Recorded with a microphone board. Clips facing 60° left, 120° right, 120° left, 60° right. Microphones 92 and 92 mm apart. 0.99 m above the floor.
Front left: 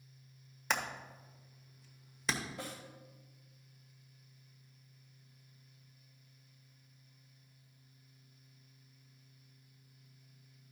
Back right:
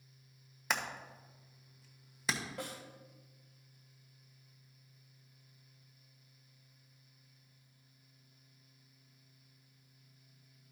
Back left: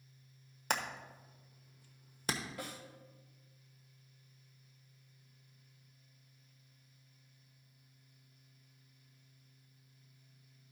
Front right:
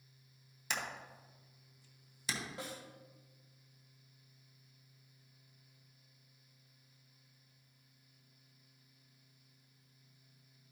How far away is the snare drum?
About 2.5 m.